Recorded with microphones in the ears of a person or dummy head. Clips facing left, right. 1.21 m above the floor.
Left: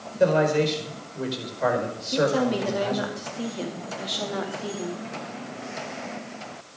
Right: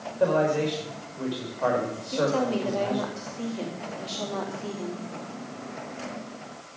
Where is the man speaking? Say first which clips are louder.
Left 3 dB; 30° left (ahead or behind), 5 m.